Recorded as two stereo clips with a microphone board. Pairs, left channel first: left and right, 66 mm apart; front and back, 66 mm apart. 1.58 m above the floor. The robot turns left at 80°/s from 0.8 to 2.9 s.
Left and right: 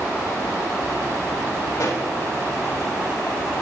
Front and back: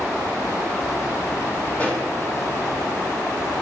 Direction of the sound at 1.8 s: 75° left.